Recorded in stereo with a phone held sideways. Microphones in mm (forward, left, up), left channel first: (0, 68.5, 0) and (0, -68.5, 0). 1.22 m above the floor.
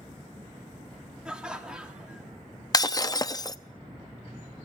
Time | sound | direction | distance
1.2 | laughter | 5° right (ahead or behind) | 3 m
2.7 | breaking glass | 30° left (ahead or behind) | 0.6 m